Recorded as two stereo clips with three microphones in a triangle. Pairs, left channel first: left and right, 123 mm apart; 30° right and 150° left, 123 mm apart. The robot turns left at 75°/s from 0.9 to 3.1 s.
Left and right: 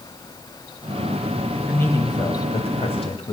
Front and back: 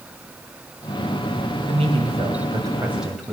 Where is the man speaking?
170° left, 2.5 m; by 3.3 s 60° left, 2.5 m.